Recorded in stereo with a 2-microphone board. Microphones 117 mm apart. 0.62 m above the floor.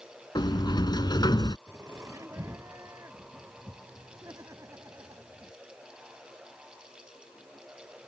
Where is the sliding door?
35° left (ahead or behind).